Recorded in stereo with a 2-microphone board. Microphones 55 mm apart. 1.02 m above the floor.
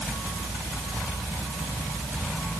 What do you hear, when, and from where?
Only background noise.